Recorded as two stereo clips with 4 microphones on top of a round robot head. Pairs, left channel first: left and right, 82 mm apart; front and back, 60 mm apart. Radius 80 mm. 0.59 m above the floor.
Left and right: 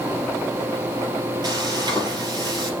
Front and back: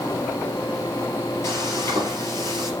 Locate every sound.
1.4 s frying: 50° right, 3.5 m